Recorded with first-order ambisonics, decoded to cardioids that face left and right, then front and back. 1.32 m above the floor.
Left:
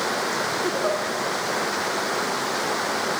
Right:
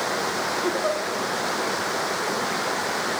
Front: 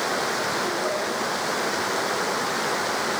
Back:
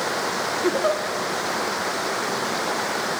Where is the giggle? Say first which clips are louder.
Even, back 4 dB; 175° right, 1.0 m.